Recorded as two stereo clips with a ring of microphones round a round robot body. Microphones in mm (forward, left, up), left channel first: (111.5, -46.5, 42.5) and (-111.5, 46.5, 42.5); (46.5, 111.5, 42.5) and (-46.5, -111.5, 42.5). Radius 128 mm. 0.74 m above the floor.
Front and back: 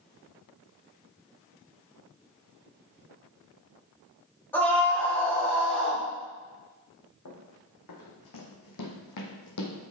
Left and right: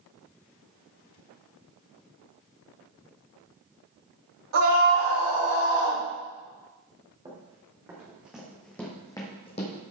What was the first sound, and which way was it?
A scream, 105° right.